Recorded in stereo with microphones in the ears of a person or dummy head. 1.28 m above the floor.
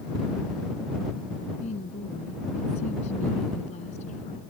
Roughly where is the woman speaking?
Left.